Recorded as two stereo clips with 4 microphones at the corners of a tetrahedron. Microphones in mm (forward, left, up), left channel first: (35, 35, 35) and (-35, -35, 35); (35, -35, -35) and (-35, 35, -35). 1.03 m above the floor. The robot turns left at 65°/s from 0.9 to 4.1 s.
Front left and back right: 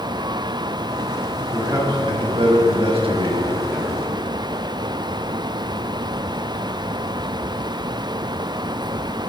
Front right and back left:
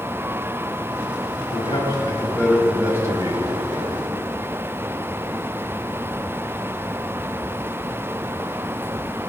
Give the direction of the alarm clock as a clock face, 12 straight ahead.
I don't hear an alarm clock.